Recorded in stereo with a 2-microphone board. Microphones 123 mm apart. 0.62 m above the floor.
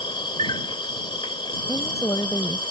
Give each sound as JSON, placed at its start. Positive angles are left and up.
{"t": 0.0, "sound": "an insect", "side_deg": 40}
{"t": 1.7, "sound": "a woman speaking", "side_deg": 30}